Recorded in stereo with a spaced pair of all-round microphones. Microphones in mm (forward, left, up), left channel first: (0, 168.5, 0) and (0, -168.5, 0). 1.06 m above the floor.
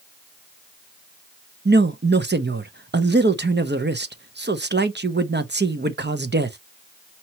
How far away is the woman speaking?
About 0.6 m.